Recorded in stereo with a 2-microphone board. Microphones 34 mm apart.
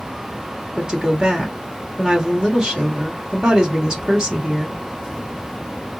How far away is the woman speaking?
About 1.4 m.